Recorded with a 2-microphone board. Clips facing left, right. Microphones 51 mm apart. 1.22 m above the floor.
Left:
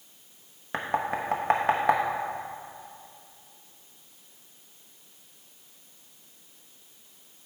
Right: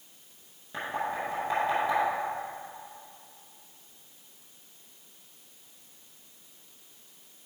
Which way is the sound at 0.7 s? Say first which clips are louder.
Left 3 dB; 65° left (ahead or behind).